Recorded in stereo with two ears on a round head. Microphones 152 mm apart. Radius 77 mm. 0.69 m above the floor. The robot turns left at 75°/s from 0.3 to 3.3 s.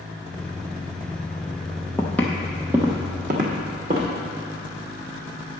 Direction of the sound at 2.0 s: 15° left (ahead or behind).